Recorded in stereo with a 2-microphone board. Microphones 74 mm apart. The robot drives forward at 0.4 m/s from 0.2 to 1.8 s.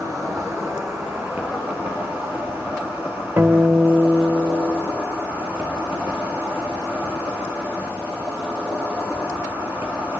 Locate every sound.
0.0 s an insect: 45° right (ahead or behind), 1.4 m; by 10.2 s 30° right (ahead or behind), 1.9 m
3.4 s a guitar: 45° right (ahead or behind), 1.2 m